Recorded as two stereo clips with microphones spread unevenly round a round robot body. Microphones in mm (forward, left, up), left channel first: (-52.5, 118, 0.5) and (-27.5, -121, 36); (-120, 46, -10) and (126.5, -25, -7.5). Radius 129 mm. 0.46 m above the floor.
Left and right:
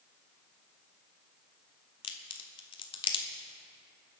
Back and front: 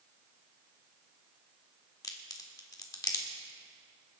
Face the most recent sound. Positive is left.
turn(degrees=105)